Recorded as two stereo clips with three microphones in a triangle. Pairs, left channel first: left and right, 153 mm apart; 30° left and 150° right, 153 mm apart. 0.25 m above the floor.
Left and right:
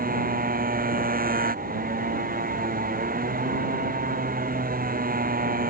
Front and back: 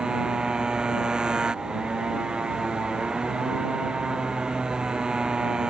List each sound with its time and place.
0.0 s a motorcycle: 65° right